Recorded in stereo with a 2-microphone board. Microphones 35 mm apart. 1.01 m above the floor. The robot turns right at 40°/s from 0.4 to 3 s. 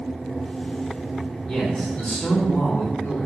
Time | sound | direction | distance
1.5 | a man speaking | 30° left | 4 m